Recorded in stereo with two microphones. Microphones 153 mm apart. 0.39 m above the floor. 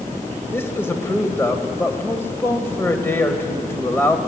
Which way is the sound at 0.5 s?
15° left (ahead or behind).